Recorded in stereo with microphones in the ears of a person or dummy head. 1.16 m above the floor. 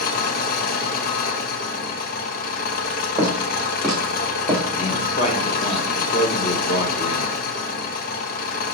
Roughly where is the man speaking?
Left.